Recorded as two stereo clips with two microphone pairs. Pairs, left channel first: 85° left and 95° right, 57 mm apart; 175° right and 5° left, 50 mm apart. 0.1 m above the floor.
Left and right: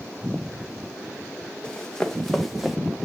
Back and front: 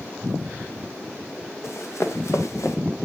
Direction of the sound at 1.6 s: 160° left.